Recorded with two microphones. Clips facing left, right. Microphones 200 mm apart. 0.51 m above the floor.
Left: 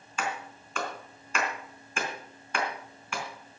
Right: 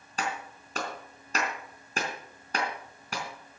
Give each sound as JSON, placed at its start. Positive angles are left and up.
{"t": 0.2, "sound": "a clap", "side_deg": -40, "distance_m": 3.5}